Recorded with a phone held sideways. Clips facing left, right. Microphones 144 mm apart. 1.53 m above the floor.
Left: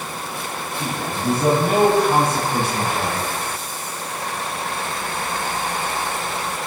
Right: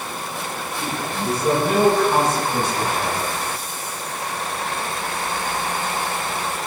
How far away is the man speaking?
About 9.5 m.